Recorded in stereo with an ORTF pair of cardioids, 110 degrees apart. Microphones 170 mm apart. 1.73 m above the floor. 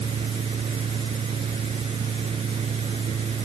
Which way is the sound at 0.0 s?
35° right.